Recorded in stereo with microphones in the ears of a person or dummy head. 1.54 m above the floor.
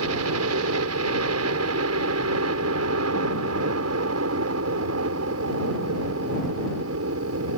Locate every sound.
0.0 s a helicopter: 75° right (ahead or behind)